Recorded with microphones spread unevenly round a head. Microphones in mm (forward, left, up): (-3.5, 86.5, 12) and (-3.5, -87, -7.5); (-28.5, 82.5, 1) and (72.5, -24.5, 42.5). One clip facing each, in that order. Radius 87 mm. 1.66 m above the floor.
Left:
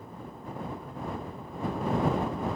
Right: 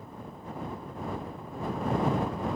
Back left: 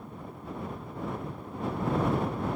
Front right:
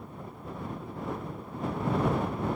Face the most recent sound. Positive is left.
No sound to turn to.